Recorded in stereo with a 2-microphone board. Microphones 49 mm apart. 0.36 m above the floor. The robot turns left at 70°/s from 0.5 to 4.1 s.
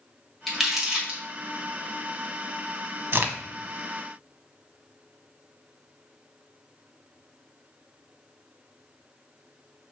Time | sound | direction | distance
0.5 | crumpling | 10° left (ahead or behind) | 1.7 m
3.1 | a crack | 50° right (ahead or behind) | 0.6 m